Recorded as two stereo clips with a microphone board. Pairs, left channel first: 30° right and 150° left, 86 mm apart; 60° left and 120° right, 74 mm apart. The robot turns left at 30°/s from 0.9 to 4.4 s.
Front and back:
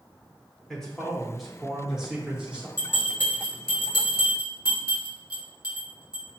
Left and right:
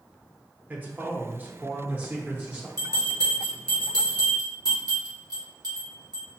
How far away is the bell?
About 1.8 m.